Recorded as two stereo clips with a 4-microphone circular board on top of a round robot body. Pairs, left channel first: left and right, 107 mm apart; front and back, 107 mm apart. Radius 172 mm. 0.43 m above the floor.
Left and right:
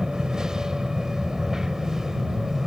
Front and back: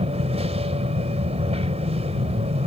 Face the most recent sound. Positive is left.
turn(degrees=-175)